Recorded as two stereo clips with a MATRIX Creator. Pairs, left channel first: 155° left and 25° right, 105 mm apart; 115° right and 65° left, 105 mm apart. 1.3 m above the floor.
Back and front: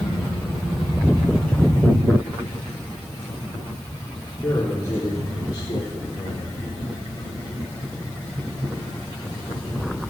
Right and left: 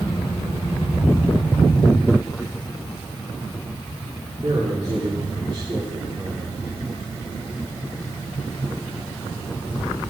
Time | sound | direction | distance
4.4 | a man speaking | 90° left | 3.5 m